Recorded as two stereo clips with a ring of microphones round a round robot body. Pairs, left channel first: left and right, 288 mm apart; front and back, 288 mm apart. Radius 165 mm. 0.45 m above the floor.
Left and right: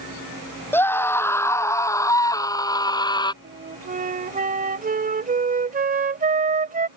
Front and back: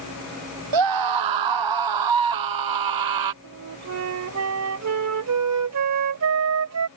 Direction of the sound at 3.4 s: 150° right.